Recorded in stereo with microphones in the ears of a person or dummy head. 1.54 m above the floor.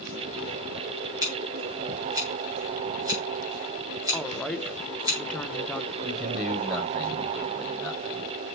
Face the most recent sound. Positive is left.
turn(degrees=5)  # may be behind; listen again after turning